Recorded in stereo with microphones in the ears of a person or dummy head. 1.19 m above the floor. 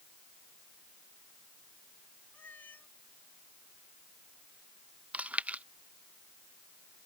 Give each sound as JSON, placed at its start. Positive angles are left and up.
{"t": 2.3, "sound": "a cat meowing", "side_deg": 10}
{"t": 5.1, "sound": "chewing", "side_deg": -10}